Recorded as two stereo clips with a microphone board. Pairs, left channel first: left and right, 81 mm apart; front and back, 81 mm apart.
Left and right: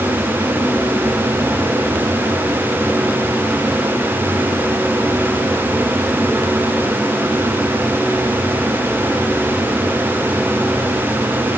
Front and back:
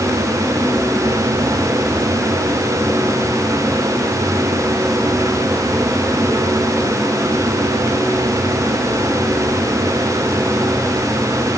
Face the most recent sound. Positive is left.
No sound to turn to.